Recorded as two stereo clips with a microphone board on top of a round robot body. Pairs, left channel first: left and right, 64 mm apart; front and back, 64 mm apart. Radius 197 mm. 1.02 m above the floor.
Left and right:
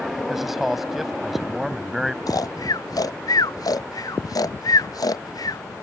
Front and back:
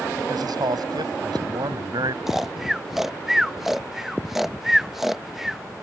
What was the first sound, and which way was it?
A man speaking, straight behind.